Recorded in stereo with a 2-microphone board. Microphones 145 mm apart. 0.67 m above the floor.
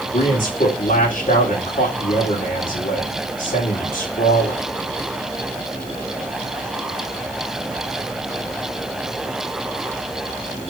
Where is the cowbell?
I don't hear a cowbell.